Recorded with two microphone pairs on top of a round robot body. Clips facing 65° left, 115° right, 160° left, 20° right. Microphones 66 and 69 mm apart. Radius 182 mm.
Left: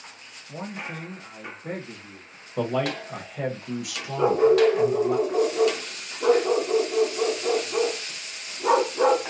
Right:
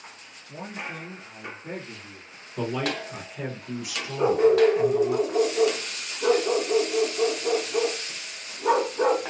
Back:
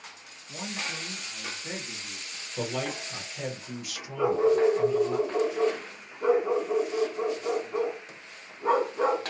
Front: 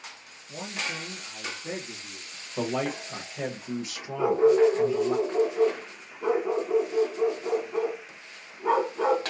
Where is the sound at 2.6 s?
30° left, 1.0 m.